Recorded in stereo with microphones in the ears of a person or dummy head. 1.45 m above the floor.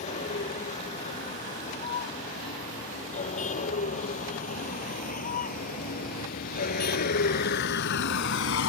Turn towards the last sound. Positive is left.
turn(degrees=75)  # may be behind; listen again after turning